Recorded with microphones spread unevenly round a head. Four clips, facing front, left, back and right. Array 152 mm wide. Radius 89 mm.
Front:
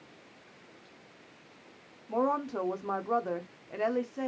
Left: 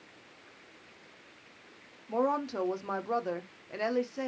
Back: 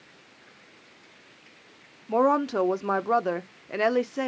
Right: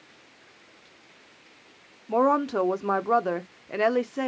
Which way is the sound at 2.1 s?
145° right.